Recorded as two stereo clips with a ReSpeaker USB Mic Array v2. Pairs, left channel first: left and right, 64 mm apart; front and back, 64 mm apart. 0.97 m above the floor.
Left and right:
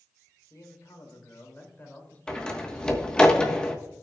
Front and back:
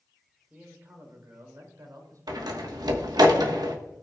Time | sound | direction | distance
0.5 | a man speaking | 115° left | 2 m
2.3 | a door slam | 170° left | 1.2 m